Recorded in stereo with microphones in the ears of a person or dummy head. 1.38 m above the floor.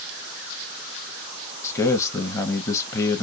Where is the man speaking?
10° left (ahead or behind), 0.6 m.